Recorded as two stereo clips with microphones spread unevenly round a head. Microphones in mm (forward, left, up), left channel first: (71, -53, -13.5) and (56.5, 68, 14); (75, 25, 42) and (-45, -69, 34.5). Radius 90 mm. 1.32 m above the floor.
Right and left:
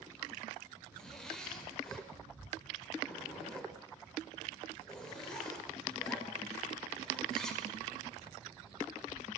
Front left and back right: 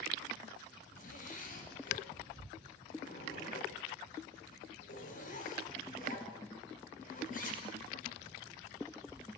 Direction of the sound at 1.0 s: 5° left.